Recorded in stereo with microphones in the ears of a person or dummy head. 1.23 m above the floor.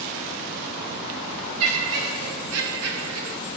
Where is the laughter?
80° right, 1.0 m.